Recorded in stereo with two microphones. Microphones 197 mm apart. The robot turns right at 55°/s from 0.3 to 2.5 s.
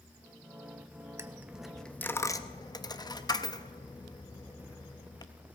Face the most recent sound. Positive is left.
turn(degrees=20)  # may be behind; listen again after turning